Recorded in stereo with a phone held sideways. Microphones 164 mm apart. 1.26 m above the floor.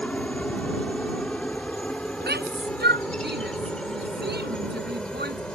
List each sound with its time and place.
0.0 s a helicopter: 5° left (ahead or behind)
2.2 s a shout: 85° right